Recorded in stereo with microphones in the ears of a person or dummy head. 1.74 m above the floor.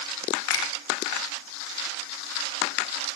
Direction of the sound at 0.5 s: 80° left.